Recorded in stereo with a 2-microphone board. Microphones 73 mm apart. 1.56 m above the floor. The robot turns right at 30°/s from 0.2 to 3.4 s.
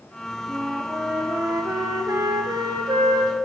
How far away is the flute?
About 1.2 m.